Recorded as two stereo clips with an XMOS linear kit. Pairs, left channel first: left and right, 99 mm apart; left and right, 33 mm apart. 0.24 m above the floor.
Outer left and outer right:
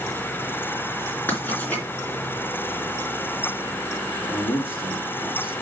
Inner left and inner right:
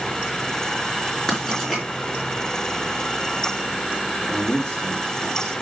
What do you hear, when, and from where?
1.3 s writing: 15° left (ahead or behind), 3.5 m
4.2 s a man speaking: 20° left (ahead or behind), 5.5 m